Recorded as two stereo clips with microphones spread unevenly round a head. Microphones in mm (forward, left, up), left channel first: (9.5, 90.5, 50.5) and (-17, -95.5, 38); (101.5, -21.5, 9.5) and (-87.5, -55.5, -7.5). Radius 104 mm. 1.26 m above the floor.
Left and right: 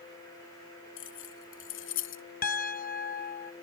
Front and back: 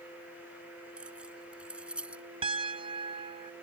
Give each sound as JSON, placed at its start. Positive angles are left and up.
{"t": 1.0, "sound": "keys jangling", "azimuth_deg": 105}
{"t": 2.4, "sound": "a piano", "azimuth_deg": 125}